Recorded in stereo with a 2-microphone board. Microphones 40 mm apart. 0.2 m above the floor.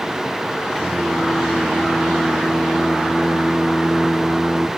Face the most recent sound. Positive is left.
turn(degrees=0)  # may be behind; listen again after turning